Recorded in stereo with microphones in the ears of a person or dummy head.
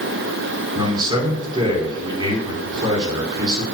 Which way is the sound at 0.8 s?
25° right (ahead or behind).